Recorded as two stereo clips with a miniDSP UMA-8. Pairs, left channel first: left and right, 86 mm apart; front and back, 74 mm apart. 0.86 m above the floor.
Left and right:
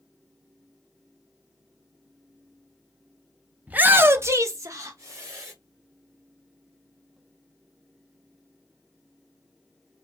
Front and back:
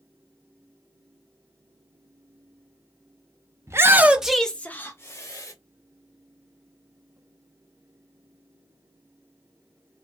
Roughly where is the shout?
Behind right.